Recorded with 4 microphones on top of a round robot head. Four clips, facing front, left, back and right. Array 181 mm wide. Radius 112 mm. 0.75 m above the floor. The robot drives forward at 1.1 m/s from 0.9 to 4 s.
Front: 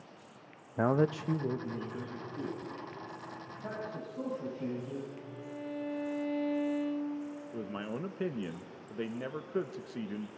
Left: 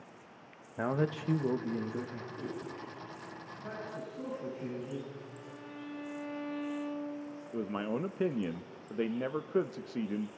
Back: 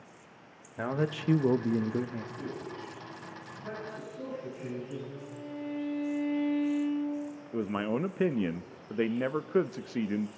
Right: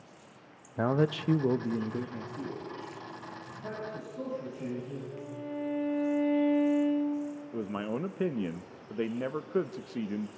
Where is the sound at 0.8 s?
35° right, 0.6 m; by 2.2 s 170° right, 1.3 m.